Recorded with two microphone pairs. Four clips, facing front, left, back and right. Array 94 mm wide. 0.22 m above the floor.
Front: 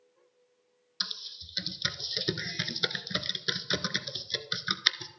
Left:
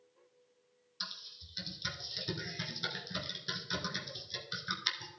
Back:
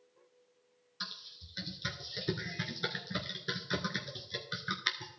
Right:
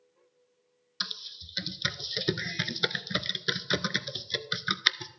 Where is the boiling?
No boiling in this recording.